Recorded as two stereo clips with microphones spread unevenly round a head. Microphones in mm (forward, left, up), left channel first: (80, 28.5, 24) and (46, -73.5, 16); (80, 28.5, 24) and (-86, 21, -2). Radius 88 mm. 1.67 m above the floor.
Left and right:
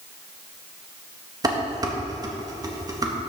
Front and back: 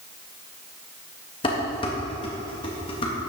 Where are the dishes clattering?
55° right, 1.7 m.